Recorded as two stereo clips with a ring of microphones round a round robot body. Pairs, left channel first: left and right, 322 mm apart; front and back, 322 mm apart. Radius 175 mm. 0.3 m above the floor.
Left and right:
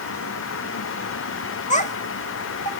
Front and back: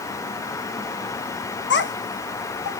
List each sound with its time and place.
1.7 s a child speaking: 35° left, 1.0 m